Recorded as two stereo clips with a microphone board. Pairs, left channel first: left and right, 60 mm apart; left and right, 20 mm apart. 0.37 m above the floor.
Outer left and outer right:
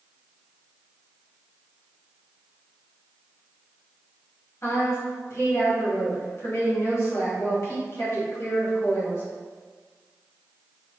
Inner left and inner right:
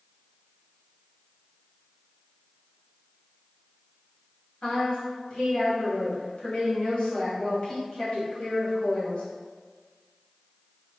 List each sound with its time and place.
4.6 s a woman speaking: 50° left (ahead or behind), 2.0 m